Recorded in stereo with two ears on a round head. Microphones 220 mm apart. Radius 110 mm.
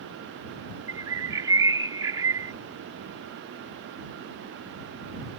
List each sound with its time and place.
0.9 s a bird: 15° right (ahead or behind)